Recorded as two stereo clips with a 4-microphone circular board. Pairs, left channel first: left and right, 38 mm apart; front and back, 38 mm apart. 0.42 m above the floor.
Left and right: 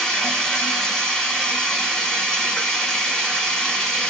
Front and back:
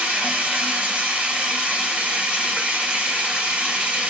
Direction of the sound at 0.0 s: 155° left.